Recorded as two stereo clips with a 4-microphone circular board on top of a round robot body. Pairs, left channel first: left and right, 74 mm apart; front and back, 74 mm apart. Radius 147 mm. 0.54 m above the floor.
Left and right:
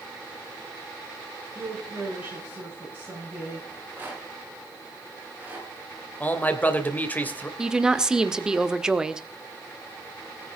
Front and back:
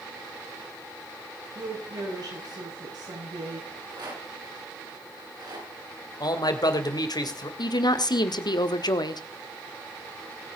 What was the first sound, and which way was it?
A woman speaking, 160° right.